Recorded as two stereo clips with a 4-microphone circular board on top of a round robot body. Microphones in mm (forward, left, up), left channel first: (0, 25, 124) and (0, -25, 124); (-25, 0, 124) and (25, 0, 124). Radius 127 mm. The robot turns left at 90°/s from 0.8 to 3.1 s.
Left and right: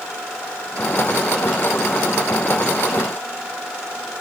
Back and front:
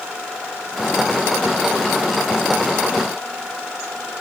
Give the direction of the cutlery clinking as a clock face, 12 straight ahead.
I don't hear cutlery clinking.